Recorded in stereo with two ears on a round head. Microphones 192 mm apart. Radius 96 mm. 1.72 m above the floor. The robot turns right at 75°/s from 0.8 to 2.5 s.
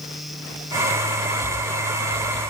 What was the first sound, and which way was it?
Only background noise.